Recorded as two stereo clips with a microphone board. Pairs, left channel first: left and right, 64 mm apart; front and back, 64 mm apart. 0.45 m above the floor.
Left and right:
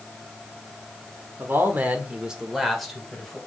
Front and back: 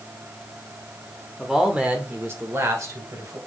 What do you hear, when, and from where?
1.4 s a man speaking: 95° right, 1.6 m; by 3.4 s 170° left, 2.5 m